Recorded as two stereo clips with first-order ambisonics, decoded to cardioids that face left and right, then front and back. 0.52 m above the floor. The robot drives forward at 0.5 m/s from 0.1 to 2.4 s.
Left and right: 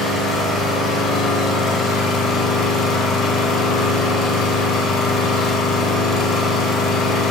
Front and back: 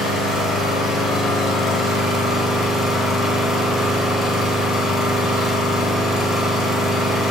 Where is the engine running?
45° left, 2.5 m; by 7.3 s 70° left, 1.9 m.